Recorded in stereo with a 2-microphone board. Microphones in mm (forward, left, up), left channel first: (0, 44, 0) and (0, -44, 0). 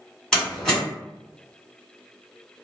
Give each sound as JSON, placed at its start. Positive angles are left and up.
{"t": 0.3, "sound": "a door slam", "side_deg": 5, "distance_m": 1.5}